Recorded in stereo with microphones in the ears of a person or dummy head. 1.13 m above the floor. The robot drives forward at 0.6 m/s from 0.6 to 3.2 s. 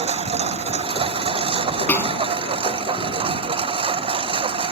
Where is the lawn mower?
30° right (ahead or behind).